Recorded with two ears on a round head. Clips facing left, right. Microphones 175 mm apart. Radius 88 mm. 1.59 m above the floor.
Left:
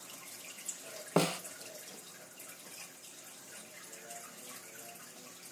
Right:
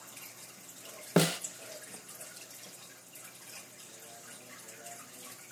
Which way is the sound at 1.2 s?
15° right (ahead or behind).